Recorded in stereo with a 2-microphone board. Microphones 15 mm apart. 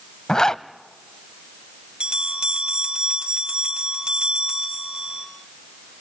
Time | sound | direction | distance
0.3 | a zipper | 45° left (ahead or behind) | 0.5 m
2.0 | a bell | 75° right (ahead or behind) | 3.5 m